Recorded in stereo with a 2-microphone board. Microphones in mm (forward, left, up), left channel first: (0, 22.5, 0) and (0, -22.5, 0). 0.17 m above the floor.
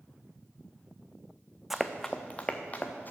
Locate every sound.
1.7 s running footsteps: 5° right (ahead or behind), 0.6 m; by 3.1 s 35° left (ahead or behind), 1.4 m